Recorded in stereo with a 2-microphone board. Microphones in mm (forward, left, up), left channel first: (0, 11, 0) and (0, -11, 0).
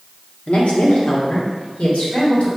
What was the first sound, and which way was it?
A woman speaking, 80° left.